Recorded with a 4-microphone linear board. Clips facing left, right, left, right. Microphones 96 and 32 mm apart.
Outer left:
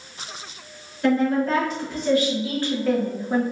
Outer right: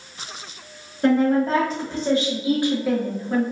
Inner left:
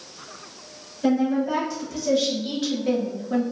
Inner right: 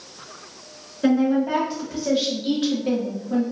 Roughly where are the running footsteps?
No running footsteps in this recording.